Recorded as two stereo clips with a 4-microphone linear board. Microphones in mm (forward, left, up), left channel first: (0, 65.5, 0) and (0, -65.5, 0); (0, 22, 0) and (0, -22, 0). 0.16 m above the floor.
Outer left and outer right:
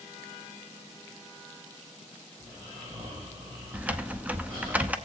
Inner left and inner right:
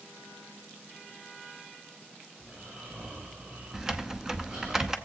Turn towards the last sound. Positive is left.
turn(degrees=-10)  # may be behind; listen again after turning